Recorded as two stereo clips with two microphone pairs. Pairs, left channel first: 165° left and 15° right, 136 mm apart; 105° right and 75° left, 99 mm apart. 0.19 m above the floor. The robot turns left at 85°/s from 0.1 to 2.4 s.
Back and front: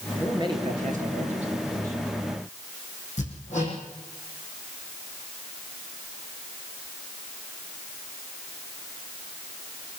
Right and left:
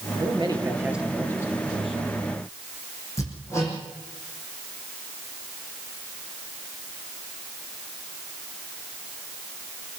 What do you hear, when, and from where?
0.2 s a man speaking: 60° left, 4 m; by 2.2 s 110° right, 4 m
3.2 s hammering: 165° right, 8 m